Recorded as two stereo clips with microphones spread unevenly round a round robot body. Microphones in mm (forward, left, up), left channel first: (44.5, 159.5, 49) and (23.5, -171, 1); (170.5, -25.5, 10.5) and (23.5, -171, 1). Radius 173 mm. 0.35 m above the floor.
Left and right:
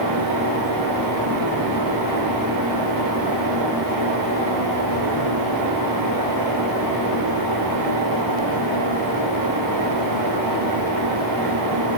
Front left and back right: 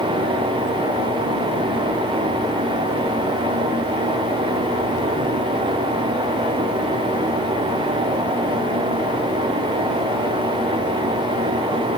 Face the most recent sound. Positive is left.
No sound to turn to.